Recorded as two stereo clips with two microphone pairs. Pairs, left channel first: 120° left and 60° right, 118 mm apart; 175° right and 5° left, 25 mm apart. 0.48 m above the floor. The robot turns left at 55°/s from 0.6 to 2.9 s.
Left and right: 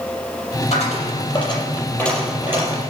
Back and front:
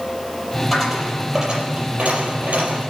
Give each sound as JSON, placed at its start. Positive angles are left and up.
{"t": 0.7, "sound": "a dropped coin", "azimuth_deg": 115, "distance_m": 5.5}